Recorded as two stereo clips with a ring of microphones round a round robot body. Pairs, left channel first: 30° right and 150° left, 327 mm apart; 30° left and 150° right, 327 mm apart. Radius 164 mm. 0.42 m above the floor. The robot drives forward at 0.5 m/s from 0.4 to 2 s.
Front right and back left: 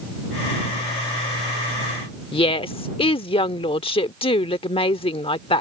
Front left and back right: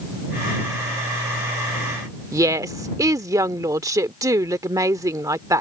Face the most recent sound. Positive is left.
turn(degrees=-80)